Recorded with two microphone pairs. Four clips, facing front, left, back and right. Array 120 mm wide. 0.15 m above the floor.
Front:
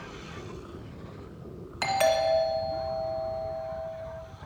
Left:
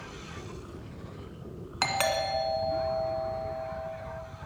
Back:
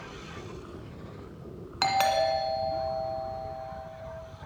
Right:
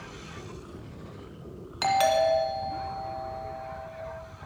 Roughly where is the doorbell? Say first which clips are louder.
Right 6 dB, front 1 dB; behind left.